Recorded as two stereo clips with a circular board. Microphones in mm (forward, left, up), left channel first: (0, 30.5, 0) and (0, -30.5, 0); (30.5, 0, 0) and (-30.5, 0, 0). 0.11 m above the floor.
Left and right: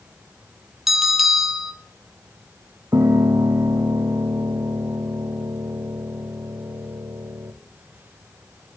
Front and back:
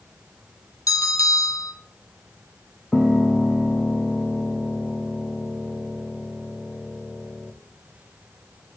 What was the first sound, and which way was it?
A bell, 5° right.